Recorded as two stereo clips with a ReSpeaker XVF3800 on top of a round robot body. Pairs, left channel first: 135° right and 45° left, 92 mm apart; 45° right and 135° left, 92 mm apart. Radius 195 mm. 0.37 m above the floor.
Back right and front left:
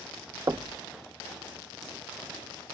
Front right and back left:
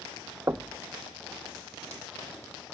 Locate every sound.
0.5 s knocking: 85° left, 0.6 m